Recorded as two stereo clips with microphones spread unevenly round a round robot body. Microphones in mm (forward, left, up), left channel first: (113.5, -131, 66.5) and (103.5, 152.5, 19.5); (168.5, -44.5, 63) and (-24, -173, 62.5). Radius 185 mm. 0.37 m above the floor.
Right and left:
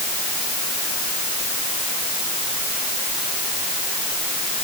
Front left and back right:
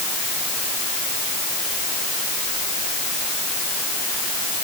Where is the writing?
I don't hear writing.